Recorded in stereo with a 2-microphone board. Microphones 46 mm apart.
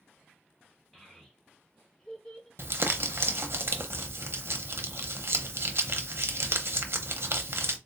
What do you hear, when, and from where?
0.9 s a child speaking: 5° left (ahead or behind), 1.0 m; by 2.5 s 10° left (ahead or behind), 1.4 m
2.6 s crumpling: 60° right (ahead or behind), 0.7 m